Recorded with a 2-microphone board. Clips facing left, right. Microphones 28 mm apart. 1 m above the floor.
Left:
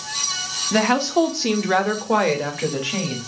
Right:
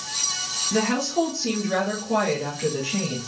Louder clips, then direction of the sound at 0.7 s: Left 5 dB; 40° left (ahead or behind).